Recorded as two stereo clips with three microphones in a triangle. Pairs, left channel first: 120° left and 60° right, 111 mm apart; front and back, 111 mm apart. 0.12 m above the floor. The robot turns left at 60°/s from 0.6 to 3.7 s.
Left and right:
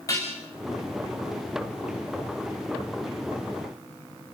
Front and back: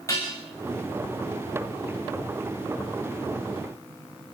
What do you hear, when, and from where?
0.1 s dishes clattering: 60° left, 7.5 m